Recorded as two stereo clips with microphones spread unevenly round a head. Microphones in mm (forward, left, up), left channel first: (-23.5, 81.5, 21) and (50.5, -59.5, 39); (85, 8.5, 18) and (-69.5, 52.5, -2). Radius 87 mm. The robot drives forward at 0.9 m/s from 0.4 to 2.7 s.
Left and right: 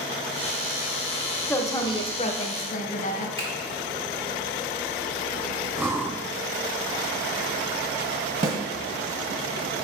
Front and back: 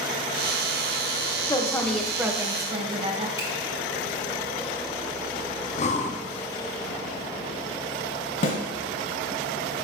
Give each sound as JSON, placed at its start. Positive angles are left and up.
{"t": 1.5, "sound": "a woman speaking", "azimuth_deg": 50, "distance_m": 1.1}
{"t": 3.4, "sound": "a finger snap", "azimuth_deg": -125, "distance_m": 2.0}
{"t": 5.8, "sound": "breathing", "azimuth_deg": 10, "distance_m": 0.6}
{"t": 8.4, "sound": "a snare drum", "azimuth_deg": -35, "distance_m": 1.3}